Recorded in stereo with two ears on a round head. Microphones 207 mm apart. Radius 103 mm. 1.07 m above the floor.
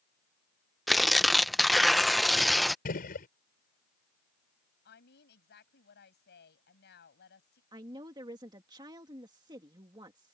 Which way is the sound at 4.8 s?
50° left (ahead or behind).